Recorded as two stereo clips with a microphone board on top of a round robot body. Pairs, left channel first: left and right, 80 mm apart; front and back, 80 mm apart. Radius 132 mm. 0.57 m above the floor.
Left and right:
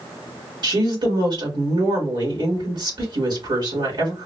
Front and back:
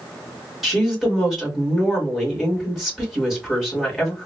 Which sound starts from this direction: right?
A woman speaking, at 0.6 s.